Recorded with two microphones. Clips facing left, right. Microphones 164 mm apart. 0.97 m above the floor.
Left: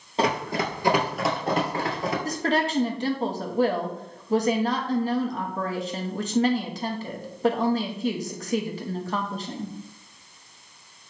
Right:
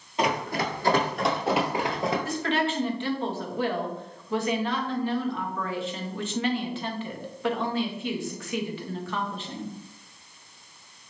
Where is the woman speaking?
40° left (ahead or behind), 0.7 m.